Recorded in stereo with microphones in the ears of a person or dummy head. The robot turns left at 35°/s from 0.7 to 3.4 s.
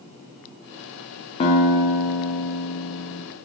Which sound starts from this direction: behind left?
A guitar, at 1.4 s.